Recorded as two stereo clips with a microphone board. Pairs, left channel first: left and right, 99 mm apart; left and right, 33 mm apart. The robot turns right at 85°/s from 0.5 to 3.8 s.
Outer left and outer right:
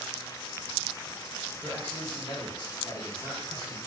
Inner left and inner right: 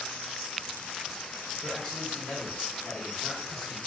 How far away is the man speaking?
About 1.3 m.